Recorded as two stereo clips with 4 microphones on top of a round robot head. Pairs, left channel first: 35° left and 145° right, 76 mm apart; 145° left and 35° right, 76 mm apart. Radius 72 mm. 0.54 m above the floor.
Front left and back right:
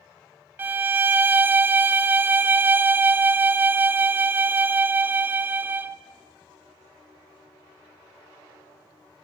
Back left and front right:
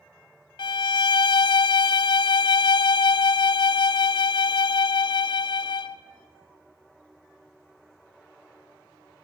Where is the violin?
150° left, 0.8 m.